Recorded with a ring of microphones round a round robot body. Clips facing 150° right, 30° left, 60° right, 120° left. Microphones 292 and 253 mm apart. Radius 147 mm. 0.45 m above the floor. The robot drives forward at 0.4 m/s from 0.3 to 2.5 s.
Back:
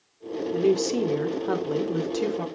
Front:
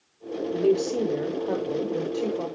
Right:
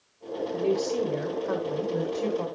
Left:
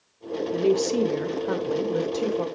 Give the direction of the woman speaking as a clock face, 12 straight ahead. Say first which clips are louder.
Even, left 4 dB; 7 o'clock.